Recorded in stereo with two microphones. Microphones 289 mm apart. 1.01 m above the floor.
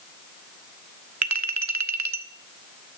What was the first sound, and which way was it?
A clink, 70° right (ahead or behind).